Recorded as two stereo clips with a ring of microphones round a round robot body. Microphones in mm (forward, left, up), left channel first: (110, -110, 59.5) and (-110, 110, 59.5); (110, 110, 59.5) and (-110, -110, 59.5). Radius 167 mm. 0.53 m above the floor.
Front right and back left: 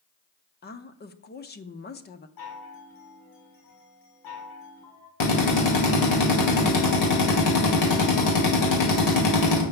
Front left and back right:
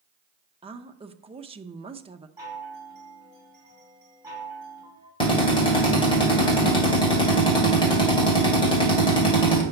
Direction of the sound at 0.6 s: 75° right.